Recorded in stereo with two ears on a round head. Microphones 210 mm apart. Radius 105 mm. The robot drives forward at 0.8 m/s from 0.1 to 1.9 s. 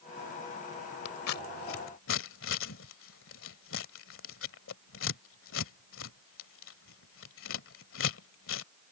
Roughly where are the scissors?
Left.